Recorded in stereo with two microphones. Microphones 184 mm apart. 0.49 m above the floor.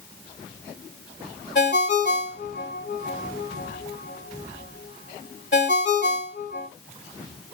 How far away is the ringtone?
About 1.2 m.